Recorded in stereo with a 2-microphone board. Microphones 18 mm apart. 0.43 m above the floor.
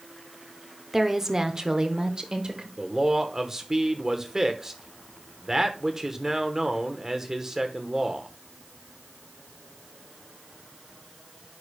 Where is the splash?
I don't hear a splash.